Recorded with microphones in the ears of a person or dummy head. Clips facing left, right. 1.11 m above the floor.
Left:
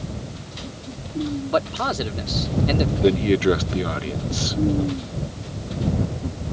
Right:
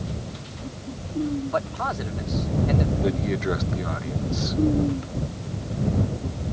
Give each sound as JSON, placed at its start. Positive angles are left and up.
{"t": 1.5, "sound": "a man speaking", "side_deg": 50}
{"t": 3.0, "sound": "a man speaking", "side_deg": 40}